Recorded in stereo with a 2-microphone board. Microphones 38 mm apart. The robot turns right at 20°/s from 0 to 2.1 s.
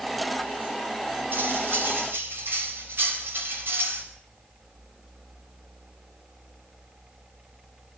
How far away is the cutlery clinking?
About 5.5 m.